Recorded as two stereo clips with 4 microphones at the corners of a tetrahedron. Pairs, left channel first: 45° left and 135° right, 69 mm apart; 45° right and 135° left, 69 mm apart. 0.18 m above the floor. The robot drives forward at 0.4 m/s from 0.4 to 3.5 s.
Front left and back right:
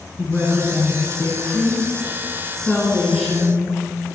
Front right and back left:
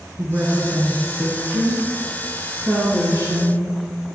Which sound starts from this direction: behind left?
A woman speaking, at 0.2 s.